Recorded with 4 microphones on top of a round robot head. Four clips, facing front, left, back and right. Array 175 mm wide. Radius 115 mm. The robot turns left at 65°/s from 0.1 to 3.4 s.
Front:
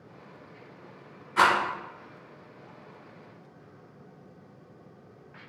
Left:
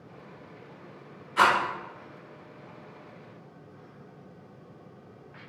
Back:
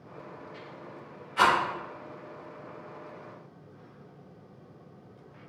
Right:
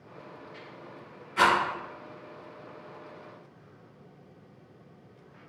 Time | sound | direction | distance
1.4 | a rattle | 25° left | 1.7 m